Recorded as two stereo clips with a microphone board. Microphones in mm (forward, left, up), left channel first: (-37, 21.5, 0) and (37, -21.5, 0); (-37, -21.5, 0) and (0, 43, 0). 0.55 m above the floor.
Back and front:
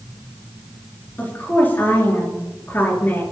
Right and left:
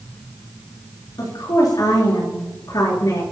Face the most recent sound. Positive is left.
turn(degrees=-145)